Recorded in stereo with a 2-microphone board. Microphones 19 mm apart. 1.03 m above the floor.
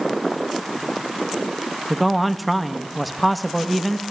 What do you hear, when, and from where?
1.9 s a man speaking: centre (ahead or behind), 1.5 m